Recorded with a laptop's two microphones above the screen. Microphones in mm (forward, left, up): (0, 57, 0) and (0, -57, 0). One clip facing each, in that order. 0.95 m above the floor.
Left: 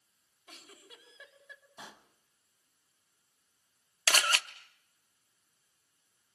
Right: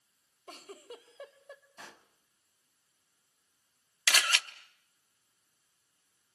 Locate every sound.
0.5 s a giggle: 40° right (ahead or behind), 2 m
1.8 s a pop: 15° left (ahead or behind), 1.1 m
4.1 s a camera shutter: 40° left (ahead or behind), 0.8 m